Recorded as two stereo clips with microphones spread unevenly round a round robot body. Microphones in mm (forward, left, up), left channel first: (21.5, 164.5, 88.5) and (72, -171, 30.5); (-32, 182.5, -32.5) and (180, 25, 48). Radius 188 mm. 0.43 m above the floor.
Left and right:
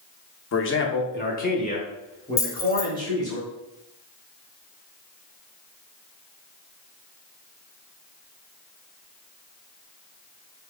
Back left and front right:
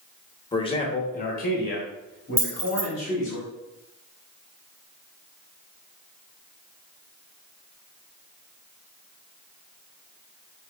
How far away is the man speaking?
About 0.8 m.